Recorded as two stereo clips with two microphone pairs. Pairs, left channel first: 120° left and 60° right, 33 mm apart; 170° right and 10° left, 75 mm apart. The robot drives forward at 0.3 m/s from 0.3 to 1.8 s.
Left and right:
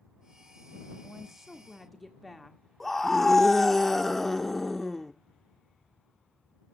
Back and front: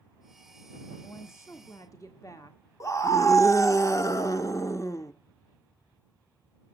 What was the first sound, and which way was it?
A woman speaking, 135° right.